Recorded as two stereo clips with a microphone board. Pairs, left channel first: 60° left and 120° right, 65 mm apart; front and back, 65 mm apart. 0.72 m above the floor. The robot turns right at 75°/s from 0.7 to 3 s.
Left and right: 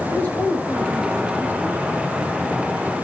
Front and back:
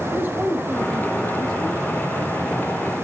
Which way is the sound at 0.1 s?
120° left.